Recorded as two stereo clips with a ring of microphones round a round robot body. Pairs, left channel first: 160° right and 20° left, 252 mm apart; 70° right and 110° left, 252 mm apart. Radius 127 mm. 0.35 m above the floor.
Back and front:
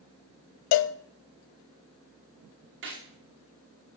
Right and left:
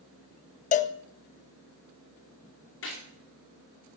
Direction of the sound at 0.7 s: 130° right.